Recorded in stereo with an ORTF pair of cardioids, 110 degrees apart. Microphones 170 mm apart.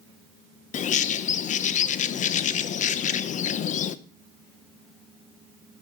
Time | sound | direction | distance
0.7 | a bird | 55° left | 0.8 m